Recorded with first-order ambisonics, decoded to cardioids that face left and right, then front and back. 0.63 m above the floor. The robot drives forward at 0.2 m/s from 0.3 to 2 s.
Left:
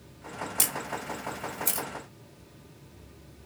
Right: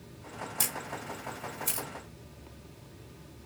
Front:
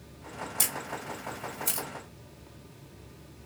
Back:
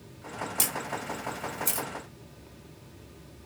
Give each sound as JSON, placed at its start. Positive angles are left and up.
{"t": 0.6, "sound": "a camera shutter", "azimuth_deg": 120, "distance_m": 1.5}